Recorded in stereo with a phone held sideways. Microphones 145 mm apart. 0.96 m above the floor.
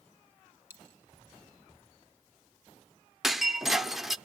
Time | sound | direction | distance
0.7 | a dropped coin | 15° right (ahead or behind) | 1.3 m
3.2 | breaking glass | centre (ahead or behind) | 0.6 m